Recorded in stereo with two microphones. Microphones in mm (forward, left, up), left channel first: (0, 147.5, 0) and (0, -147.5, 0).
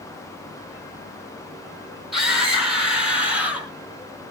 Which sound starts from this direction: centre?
A scream, at 2.1 s.